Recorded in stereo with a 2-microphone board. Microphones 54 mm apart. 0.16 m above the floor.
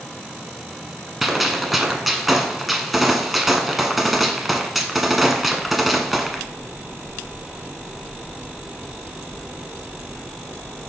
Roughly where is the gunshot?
Centre.